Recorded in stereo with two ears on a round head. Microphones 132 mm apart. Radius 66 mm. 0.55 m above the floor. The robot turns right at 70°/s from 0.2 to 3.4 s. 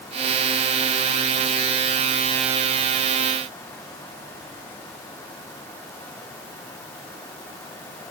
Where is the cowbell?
No cowbell in this recording.